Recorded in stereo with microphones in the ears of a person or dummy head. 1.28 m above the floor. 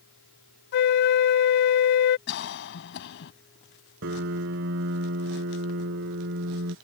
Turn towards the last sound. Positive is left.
turn(degrees=-65)  # may be behind; listen again after turning